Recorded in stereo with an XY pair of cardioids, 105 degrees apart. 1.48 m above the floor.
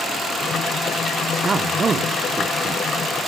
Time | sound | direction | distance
1.4 | a man speaking | 35° right | 1.4 m